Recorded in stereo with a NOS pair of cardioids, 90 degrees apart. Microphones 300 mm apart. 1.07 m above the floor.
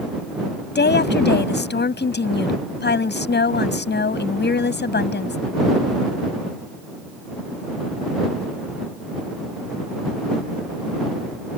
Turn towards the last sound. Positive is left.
turn(degrees=35)